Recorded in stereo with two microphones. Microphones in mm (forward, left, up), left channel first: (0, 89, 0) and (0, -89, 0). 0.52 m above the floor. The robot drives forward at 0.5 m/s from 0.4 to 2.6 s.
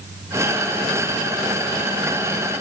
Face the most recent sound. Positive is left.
No sound to turn to.